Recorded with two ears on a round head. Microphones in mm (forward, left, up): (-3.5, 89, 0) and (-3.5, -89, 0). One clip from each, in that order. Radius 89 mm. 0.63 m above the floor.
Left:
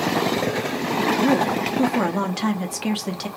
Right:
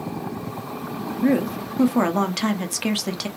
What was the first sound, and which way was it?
A woman speaking, 15° right (ahead or behind).